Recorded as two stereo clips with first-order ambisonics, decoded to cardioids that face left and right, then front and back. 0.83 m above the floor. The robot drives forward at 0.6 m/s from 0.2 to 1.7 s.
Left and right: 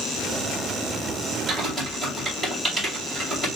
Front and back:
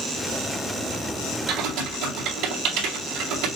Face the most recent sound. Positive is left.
turn(degrees=-175)